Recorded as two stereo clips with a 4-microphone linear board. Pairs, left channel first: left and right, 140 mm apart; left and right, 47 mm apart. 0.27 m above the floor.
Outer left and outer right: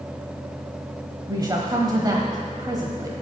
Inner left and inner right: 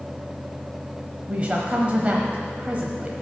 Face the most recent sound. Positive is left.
turn(degrees=-30)  # may be behind; listen again after turning